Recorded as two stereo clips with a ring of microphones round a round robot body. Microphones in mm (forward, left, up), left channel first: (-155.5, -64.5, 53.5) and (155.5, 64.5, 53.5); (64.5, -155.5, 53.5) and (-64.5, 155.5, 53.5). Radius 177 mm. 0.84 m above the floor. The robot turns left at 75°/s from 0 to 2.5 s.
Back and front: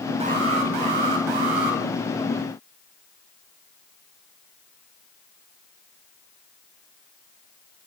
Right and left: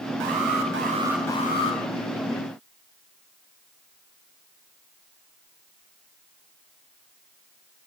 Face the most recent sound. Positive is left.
turn(degrees=-75)